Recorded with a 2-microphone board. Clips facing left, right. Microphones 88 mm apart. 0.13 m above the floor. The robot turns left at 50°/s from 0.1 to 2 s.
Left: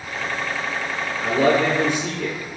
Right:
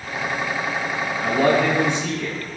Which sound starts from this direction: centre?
A man speaking, at 1.2 s.